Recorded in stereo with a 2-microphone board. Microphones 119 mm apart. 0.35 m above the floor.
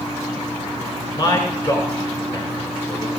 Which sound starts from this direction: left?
A man speaking, at 1.2 s.